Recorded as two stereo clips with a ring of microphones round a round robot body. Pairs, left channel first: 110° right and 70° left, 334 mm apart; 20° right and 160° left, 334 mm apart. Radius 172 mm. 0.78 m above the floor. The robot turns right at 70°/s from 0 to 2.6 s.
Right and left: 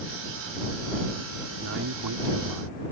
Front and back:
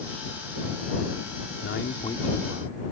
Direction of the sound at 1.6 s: 20° left.